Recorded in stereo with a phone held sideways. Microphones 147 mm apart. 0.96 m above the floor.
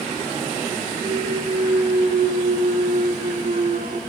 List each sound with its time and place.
1.0 s a clunk: 70° right (ahead or behind), 2 m